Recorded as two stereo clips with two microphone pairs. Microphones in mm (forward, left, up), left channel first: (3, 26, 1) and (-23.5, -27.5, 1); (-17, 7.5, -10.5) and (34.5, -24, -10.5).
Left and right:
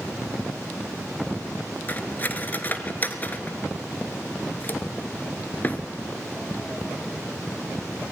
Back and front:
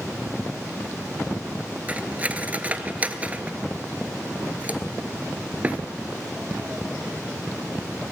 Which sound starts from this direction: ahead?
Cutlery clinking, at 1.9 s.